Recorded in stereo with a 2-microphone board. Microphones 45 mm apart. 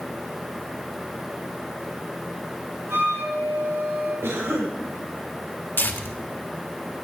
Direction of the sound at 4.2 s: 70° right (ahead or behind).